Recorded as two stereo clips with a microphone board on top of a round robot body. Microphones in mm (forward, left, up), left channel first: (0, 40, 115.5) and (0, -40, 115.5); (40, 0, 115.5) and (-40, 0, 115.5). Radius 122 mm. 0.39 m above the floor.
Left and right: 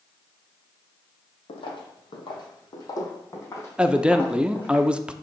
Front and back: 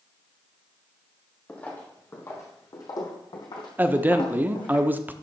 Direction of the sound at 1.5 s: 75° left.